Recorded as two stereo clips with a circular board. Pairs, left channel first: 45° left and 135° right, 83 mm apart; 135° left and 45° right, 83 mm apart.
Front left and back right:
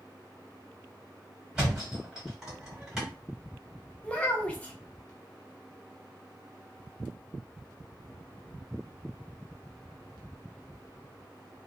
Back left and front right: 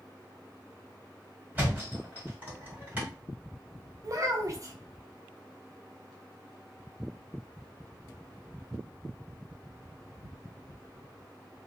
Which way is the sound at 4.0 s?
20° right.